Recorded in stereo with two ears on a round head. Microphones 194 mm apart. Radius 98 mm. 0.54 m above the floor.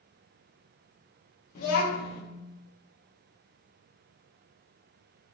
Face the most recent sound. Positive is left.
turn(degrees=40)  # may be behind; listen again after turning